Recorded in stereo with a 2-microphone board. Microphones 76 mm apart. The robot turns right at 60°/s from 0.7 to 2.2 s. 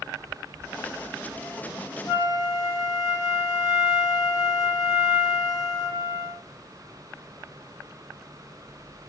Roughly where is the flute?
Left.